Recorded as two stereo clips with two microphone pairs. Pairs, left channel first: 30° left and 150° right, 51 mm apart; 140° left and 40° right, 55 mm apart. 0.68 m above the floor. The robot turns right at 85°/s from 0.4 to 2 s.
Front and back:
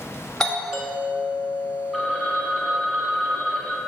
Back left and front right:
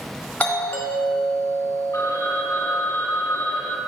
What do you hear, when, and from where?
0.4 s a doorbell: 100° left, 1.2 m; by 2.7 s 125° right, 1.2 m
1.9 s a phone ringing: 115° left, 0.9 m; by 3.8 s 120° left, 0.9 m